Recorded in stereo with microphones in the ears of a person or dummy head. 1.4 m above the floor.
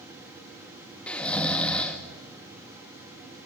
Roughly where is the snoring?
Centre.